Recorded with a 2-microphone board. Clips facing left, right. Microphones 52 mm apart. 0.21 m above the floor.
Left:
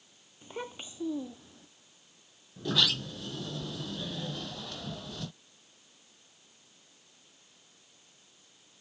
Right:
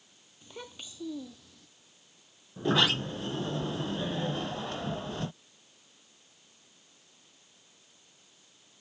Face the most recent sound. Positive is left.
turn(degrees=-35)  # may be behind; listen again after turning